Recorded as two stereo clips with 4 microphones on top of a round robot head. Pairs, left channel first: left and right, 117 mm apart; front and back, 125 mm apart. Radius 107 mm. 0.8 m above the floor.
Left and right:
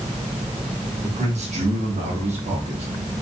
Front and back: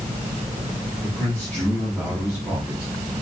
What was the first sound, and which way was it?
A man speaking, 70° right.